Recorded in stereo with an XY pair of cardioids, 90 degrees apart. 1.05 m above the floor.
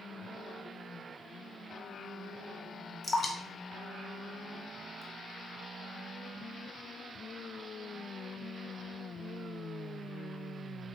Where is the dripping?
35° left, 0.8 m.